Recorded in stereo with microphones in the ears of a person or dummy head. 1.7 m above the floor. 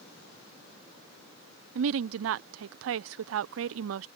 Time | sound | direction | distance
1.8 | a woman speaking | 70° right (ahead or behind) | ?